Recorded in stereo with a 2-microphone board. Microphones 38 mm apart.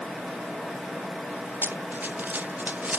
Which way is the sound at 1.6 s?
65° right (ahead or behind).